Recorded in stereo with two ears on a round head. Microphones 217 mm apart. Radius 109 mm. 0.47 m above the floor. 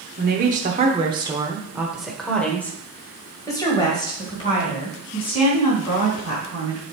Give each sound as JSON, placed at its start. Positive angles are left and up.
{"t": 0.2, "sound": "a woman speaking", "side_deg": -40, "distance_m": 1.1}